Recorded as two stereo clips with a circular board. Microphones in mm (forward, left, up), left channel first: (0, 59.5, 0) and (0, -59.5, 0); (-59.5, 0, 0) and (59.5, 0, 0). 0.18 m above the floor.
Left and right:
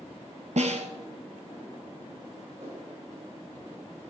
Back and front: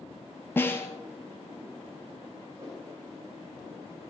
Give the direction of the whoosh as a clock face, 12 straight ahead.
1 o'clock.